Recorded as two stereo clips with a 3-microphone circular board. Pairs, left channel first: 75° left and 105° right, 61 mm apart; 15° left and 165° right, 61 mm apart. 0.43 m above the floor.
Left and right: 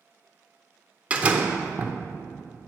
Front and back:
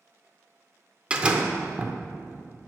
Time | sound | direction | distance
1.1 | a door slam | 125° right | 0.6 m